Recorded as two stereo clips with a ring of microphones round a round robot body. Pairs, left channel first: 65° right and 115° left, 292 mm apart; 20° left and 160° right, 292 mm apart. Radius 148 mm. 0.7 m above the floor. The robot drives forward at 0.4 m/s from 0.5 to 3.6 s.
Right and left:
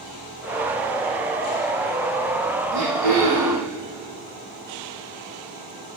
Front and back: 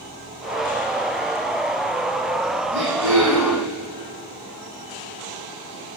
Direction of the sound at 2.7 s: 150° left.